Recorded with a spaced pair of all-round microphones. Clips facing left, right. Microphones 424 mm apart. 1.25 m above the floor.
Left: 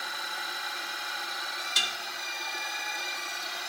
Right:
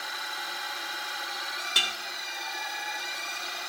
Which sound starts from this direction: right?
Dishes clattering, at 1.8 s.